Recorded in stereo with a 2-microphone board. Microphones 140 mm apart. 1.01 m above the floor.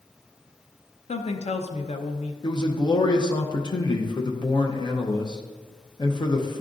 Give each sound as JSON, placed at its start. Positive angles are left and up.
{"t": 1.1, "sound": "a woman speaking", "side_deg": 50, "distance_m": 0.6}
{"t": 2.4, "sound": "a man speaking", "side_deg": 30, "distance_m": 0.6}